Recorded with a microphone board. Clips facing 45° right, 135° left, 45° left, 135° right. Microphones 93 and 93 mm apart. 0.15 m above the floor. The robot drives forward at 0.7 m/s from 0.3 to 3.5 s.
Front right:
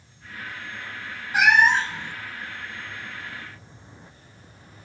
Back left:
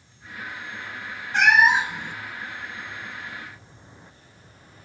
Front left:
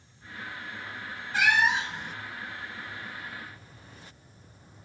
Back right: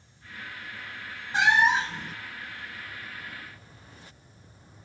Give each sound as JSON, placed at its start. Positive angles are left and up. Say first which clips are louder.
{"t": 1.3, "sound": "a cat meowing", "louder": "even, back right 3 dB", "azimuth_deg": -115, "distance_m": 0.6}